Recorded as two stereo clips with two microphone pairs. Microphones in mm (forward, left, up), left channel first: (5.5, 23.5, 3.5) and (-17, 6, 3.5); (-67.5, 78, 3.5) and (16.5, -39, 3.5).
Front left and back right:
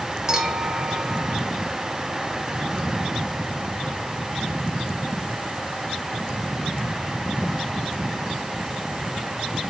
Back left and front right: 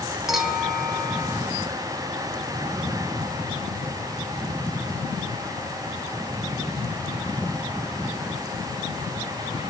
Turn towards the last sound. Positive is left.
turn(degrees=-145)